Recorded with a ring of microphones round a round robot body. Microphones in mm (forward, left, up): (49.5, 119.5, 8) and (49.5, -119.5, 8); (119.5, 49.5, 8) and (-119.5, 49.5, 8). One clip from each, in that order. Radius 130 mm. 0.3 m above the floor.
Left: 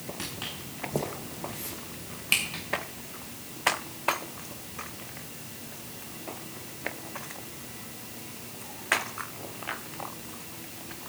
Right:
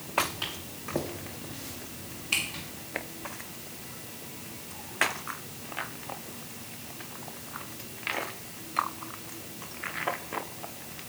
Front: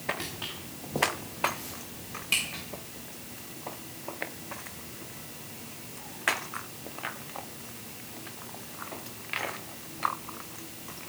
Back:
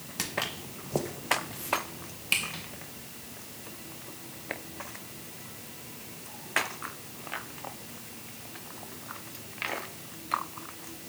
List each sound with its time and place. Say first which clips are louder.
0.2 s footsteps: right 7 dB, back 4 dB; 165° right, 1.2 m; by 2.6 s 110° left, 2.5 m